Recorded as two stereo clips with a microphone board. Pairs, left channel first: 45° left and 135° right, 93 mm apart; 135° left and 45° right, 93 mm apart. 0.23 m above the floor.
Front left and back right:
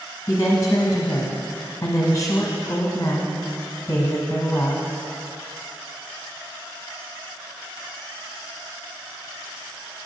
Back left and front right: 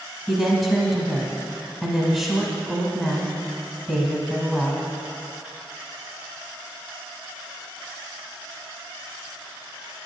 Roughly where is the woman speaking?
Ahead left.